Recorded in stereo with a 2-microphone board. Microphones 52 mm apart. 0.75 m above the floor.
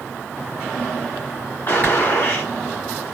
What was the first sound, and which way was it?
A gunshot, 30° left (ahead or behind).